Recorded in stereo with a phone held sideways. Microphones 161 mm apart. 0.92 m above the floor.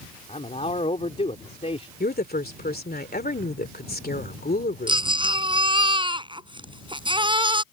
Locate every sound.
0.3 s a man speaking: 40° left (ahead or behind)
2.0 s a woman speaking: 70° left (ahead or behind)
4.9 s a baby crying: 30° right (ahead or behind)